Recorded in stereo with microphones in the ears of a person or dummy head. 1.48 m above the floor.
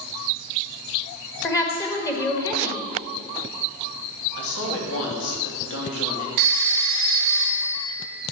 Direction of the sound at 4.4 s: 80° left.